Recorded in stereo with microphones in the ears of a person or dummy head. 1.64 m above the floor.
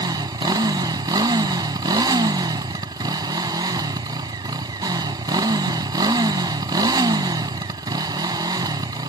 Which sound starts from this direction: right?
A motorcycle, at 0.0 s.